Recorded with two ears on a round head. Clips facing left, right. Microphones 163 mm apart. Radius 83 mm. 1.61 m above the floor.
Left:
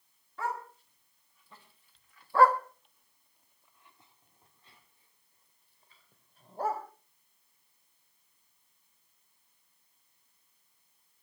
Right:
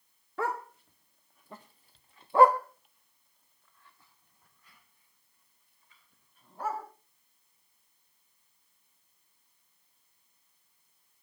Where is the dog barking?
50° right (ahead or behind), 1.9 m; by 6.8 s 35° left (ahead or behind), 4 m.